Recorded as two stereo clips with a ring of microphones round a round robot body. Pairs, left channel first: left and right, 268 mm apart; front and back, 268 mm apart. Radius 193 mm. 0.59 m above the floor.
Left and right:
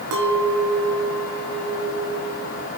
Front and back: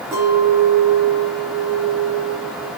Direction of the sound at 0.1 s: 95° right.